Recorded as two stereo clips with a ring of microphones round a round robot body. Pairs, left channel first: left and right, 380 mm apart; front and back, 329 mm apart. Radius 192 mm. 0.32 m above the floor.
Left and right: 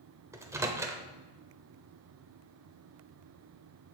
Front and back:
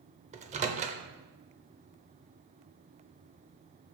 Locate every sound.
0.3 s a microwave: 160° right, 0.6 m